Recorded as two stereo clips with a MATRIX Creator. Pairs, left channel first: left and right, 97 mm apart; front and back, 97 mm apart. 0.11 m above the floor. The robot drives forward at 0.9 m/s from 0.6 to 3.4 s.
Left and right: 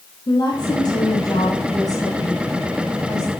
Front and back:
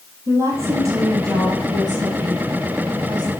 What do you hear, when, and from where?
0.3 s a woman speaking: 125° left, 3 m; by 3.3 s 150° left, 5 m